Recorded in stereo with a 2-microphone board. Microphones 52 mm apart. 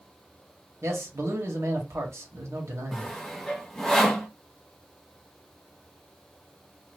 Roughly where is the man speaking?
Right.